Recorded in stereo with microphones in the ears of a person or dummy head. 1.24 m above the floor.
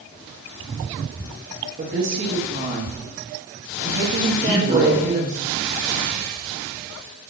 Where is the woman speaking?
40° right (ahead or behind), 0.9 m.